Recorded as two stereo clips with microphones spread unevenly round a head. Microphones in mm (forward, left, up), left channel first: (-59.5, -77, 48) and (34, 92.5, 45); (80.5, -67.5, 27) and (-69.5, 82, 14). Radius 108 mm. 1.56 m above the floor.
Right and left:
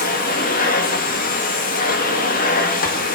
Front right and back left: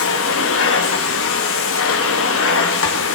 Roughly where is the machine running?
Right.